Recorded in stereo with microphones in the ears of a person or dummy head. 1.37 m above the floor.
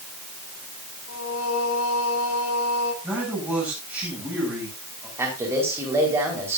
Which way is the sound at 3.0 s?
10° right (ahead or behind).